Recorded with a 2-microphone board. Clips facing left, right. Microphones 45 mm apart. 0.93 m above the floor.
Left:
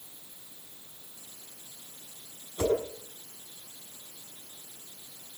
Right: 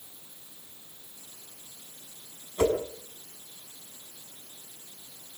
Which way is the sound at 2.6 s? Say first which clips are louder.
Right 2 dB; 40° right (ahead or behind).